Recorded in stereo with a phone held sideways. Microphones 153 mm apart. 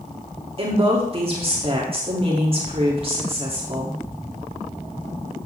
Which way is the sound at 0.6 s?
40° right (ahead or behind).